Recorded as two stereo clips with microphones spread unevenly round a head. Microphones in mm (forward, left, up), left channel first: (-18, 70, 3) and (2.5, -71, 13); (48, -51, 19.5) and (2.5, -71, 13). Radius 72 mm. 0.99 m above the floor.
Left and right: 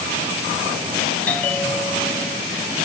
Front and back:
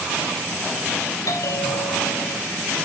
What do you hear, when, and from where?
1.3 s a bell: 15° left, 2.0 m